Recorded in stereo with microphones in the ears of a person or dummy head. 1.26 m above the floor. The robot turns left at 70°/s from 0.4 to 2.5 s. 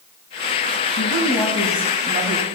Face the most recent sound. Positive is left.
turn(degrees=-60)